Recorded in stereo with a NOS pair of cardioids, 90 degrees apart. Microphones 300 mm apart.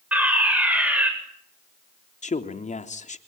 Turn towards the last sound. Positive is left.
turn(degrees=25)